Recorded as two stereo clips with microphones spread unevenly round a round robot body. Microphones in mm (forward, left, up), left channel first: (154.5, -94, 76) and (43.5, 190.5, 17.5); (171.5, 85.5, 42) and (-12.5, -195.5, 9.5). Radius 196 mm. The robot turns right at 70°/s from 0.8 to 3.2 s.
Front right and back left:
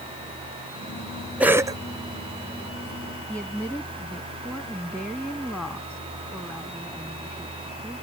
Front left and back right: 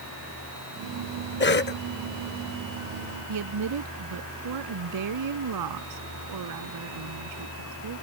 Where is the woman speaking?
160° right.